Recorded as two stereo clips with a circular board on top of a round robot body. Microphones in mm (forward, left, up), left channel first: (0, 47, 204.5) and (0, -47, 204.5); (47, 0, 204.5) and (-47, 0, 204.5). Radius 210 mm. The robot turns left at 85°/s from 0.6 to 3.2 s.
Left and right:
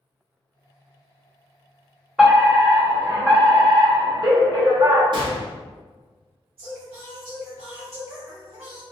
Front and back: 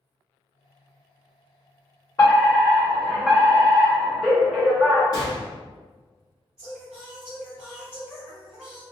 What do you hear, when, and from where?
2.2 s a fire alarm: straight ahead, 1.6 m; by 5.0 s 90° right, 1.6 m
5.1 s a gunshot: 50° right, 0.8 m
6.6 s singing: 100° right, 1.0 m